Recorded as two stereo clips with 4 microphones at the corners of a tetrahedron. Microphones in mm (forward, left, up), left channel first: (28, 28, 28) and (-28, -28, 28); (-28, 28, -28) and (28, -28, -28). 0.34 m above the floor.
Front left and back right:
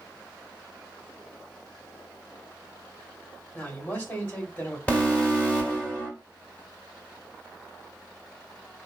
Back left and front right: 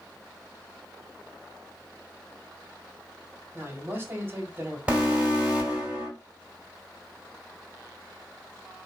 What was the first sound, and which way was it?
A man speaking, 10° right.